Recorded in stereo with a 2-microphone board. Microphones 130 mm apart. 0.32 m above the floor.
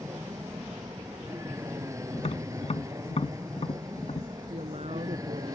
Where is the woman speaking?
55° right (ahead or behind).